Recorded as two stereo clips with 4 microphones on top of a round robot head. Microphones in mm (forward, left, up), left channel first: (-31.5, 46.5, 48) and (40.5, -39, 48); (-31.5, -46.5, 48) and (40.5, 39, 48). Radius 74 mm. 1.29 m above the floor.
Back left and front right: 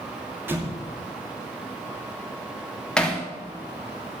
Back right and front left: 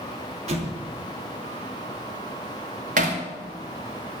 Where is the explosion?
20° left, 3 m.